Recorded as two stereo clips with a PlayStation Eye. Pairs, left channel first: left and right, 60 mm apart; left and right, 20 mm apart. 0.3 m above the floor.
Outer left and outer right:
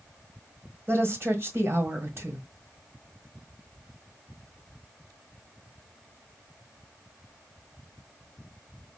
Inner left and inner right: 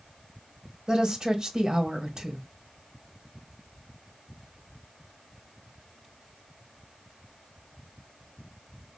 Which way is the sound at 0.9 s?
40° right (ahead or behind).